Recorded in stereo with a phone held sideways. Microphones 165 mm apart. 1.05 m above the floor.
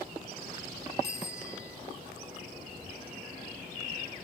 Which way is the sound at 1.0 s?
85° right.